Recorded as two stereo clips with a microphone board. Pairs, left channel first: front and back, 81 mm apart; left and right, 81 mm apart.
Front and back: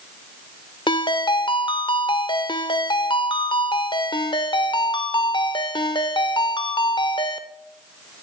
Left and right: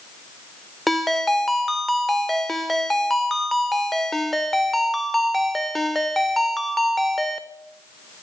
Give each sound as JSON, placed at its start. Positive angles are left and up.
{"t": 0.9, "sound": "a ringtone", "azimuth_deg": 0, "distance_m": 0.6}